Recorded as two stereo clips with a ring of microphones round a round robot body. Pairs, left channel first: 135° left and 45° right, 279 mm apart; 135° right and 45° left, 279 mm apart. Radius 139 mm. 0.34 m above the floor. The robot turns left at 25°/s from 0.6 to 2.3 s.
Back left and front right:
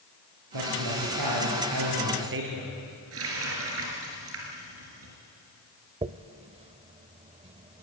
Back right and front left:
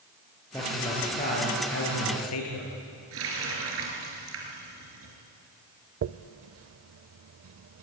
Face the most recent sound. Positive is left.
turn(degrees=20)